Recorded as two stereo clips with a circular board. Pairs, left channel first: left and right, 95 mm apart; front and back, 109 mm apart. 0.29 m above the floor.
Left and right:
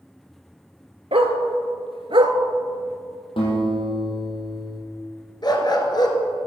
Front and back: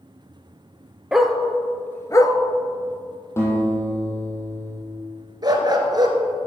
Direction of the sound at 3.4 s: 65° left.